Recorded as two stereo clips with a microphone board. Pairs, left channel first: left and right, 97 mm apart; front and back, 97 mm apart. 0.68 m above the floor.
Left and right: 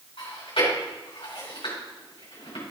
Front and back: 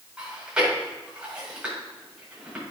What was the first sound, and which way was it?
Chewing, 100° left.